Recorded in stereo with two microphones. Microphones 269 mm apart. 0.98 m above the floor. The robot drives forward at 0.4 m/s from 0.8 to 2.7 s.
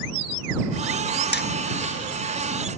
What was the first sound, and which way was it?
Hammering, 40° left (ahead or behind).